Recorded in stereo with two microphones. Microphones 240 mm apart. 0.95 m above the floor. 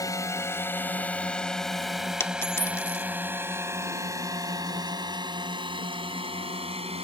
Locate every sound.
0.0 s a drone: 15° left (ahead or behind); by 7.0 s 25° right (ahead or behind)
2.2 s a dropped coin: 10° left (ahead or behind)